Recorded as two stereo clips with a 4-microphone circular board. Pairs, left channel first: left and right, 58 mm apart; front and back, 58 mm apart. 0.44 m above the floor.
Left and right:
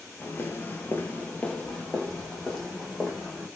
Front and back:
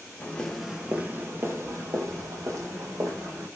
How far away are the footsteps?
About 0.5 m.